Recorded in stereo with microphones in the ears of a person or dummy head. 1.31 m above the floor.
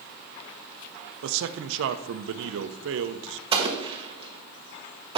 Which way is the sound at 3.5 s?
25° right (ahead or behind).